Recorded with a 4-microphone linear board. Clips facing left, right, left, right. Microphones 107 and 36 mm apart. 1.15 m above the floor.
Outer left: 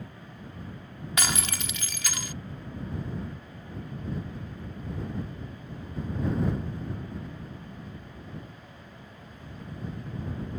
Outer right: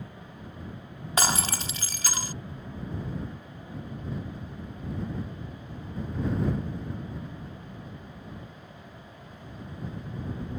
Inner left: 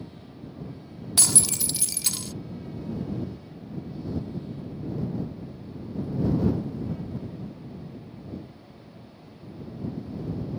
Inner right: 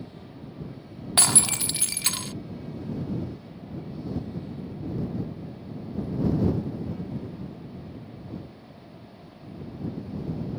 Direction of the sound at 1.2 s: 35° right (ahead or behind).